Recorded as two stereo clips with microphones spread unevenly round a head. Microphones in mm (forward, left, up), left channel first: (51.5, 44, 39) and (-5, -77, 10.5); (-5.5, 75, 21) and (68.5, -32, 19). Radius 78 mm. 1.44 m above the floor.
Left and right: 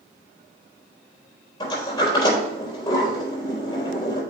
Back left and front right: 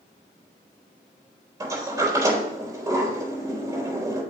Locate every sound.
1.6 s a sliding door: 15° left, 4 m